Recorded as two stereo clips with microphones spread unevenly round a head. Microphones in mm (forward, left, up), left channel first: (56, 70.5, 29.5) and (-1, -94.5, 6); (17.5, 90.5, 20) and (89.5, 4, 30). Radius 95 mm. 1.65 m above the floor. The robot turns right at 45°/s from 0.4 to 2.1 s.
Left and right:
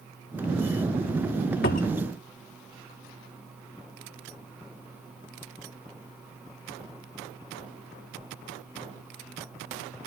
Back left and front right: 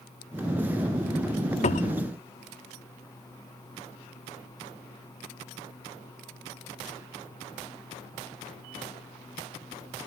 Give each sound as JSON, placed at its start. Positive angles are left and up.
{"t": 1.6, "sound": "a cupboard door", "azimuth_deg": 115}